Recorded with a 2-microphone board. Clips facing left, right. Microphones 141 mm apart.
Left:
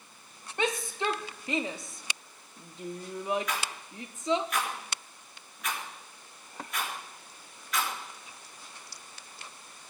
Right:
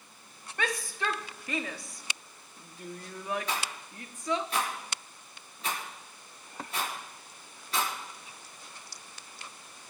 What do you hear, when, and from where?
0.6 s a shout: 20° left (ahead or behind), 0.7 m
3.5 s a rattle: 30° right (ahead or behind), 4 m